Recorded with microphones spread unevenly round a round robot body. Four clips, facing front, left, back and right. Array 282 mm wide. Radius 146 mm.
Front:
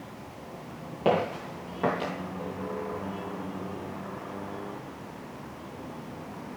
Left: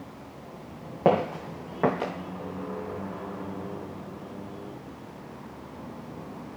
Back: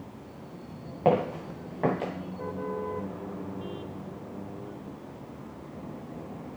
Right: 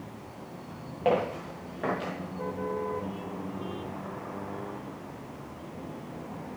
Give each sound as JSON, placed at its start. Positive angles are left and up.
{"t": 1.1, "sound": "footsteps", "azimuth_deg": 100, "distance_m": 3.0}